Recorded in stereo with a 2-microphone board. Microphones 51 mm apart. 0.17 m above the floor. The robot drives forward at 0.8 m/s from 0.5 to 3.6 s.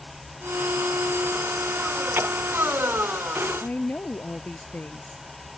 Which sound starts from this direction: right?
A splash, at 2.1 s.